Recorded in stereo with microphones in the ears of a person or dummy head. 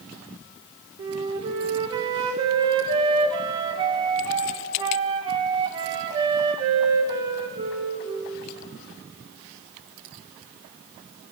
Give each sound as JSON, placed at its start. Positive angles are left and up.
{"t": 1.0, "sound": "a flute", "side_deg": -25, "distance_m": 0.6}